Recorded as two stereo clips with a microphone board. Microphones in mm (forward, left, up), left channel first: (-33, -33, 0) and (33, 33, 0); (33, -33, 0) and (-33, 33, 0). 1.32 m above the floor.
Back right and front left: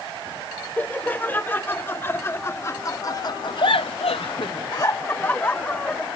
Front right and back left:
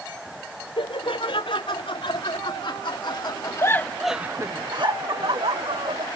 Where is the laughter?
65° right; by 6.1 s 145° left.